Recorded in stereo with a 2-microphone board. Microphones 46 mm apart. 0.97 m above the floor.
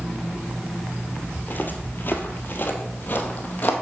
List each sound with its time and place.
1.4 s footsteps: 40° left (ahead or behind), 1.4 m